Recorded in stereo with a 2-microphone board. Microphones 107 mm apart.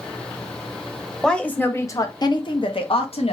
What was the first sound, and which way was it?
A woman speaking, 5° left (ahead or behind).